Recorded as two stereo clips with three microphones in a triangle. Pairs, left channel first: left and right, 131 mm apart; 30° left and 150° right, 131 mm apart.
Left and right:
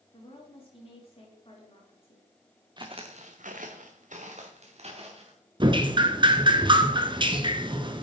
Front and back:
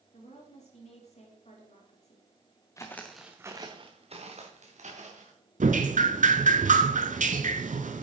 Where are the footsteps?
35° right, 1.4 m; by 5.3 s 130° right, 3.5 m.